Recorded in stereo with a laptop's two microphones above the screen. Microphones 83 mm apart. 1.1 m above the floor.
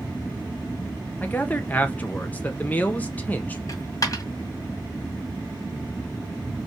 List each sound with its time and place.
1.2 s a man speaking: 20° left (ahead or behind), 0.7 m
3.7 s a dropped coin: 45° left (ahead or behind), 1.3 m